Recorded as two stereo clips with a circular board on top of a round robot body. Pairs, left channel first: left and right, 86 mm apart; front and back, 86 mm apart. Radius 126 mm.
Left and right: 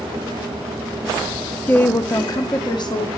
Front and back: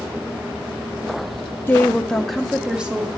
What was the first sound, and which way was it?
A woman speaking, 35° left.